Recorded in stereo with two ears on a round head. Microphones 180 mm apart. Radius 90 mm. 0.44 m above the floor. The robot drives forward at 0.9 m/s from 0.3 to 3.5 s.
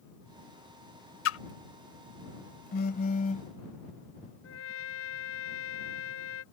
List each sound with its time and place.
1.2 s a splash: 70° left (ahead or behind); by 1.4 s 75° left (ahead or behind)
2.7 s a phone buzzing: 50° left (ahead or behind); by 3.5 s 35° left (ahead or behind)
4.4 s a trumpet: 75° left (ahead or behind)